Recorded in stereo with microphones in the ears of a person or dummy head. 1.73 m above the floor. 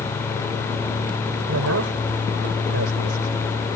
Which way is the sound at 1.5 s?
60° right (ahead or behind).